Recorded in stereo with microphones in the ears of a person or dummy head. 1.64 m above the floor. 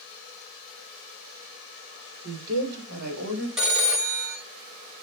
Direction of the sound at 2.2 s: 60° right (ahead or behind).